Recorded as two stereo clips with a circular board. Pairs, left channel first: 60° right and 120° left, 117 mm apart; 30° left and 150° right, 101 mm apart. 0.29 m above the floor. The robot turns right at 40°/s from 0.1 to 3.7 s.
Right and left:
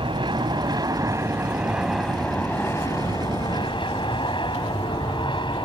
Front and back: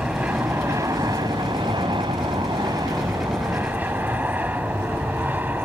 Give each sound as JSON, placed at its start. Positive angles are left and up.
{"t": 0.0, "sound": "an aircraft", "azimuth_deg": 135}